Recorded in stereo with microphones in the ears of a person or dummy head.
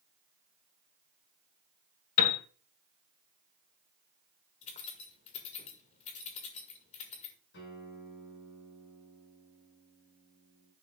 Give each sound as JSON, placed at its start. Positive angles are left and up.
{"t": 2.2, "sound": "a piano", "side_deg": 45, "distance_m": 1.5}
{"t": 4.6, "sound": "keys jangling", "side_deg": 35, "distance_m": 1.8}
{"t": 7.5, "sound": "a guitar", "side_deg": 65, "distance_m": 5.5}